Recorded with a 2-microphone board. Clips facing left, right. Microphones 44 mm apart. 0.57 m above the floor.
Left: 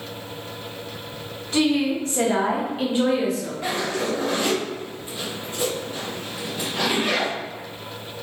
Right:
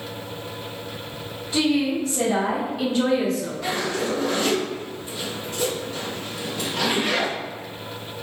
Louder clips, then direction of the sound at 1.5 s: Left 1 dB; 50° left (ahead or behind).